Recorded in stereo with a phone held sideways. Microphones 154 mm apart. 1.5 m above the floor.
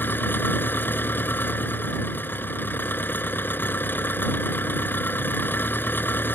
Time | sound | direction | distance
0.0 | an engine running | 10° left (ahead or behind) | ?